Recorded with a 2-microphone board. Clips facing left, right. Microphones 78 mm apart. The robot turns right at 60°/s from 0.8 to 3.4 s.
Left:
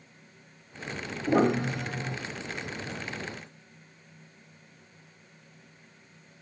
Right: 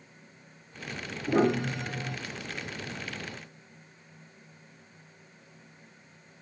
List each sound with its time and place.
1.3 s a piano: 105° left, 2.5 m; by 2.2 s 160° left, 2.5 m